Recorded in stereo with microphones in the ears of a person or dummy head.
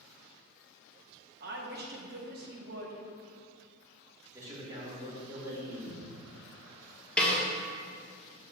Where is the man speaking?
15° right (ahead or behind), 2 m.